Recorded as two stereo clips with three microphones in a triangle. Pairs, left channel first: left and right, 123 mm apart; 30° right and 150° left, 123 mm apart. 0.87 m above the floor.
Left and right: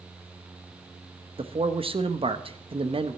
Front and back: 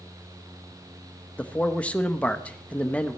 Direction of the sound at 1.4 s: 110° right.